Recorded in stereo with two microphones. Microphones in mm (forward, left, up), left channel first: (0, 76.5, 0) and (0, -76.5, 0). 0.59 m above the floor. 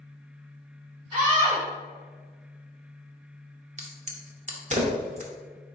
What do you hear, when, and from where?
1.1 s a scream: 40° right (ahead or behind), 1.3 m
3.8 s a crack: 50° right (ahead or behind), 0.7 m